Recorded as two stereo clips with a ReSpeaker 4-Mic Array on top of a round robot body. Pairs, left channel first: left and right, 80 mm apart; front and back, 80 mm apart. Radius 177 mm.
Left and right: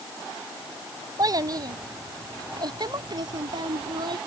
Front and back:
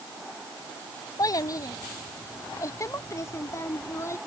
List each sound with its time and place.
1.2 s a child speaking: 45° right; by 4.2 s 55° right